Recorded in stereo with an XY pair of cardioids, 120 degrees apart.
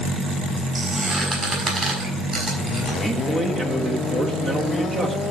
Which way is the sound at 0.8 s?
20° right.